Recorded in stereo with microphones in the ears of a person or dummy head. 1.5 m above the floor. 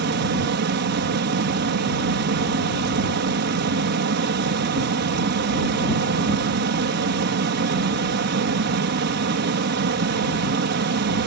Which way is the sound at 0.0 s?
60° right (ahead or behind).